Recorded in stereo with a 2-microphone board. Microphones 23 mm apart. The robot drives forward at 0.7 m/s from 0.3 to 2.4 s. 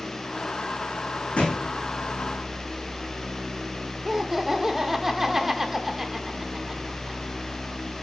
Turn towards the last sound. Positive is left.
turn(degrees=-10)  # may be behind; listen again after turning